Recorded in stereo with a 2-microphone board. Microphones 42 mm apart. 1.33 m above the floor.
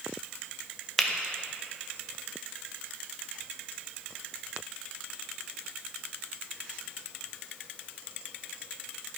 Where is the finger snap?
Centre (ahead or behind), 0.9 m.